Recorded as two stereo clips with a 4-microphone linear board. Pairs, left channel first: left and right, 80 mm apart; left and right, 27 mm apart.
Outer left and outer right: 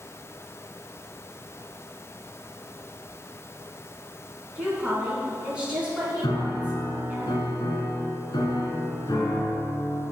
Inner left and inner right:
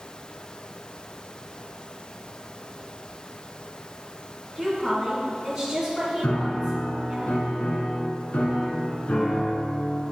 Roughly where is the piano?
Left.